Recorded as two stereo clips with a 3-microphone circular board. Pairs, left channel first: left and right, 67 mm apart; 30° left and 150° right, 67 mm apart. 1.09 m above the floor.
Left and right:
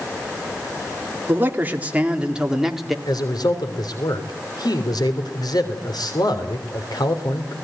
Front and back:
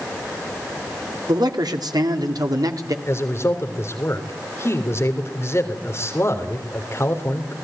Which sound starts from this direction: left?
A man speaking, at 3.0 s.